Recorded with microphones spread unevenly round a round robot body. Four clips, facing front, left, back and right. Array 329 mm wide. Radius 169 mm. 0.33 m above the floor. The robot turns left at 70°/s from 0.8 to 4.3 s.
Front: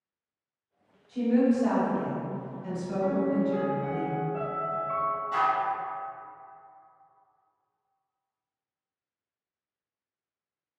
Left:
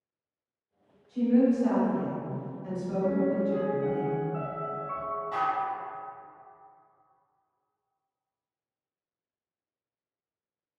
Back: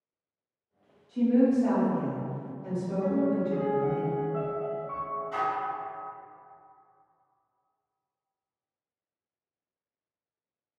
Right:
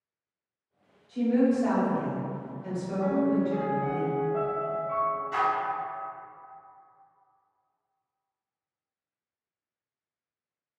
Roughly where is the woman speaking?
Ahead.